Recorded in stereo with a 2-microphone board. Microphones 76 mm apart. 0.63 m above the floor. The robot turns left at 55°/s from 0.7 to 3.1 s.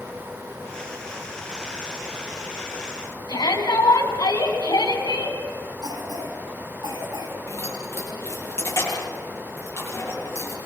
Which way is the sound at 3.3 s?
70° left (ahead or behind).